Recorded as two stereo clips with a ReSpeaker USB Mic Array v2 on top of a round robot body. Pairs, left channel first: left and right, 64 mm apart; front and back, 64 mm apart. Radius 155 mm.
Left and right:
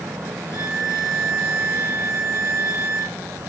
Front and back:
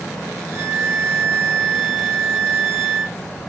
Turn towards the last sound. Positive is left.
turn(degrees=130)